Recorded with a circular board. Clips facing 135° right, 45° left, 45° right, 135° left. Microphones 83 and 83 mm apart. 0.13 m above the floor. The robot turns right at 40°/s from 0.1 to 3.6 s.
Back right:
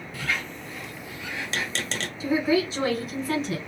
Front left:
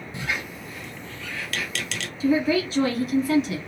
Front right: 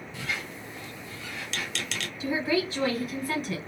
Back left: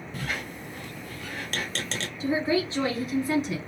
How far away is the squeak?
About 0.5 m.